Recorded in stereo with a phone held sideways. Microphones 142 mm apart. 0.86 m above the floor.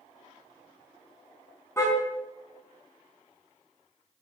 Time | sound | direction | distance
1.8 | a car horn | 20° left (ahead or behind) | 4 m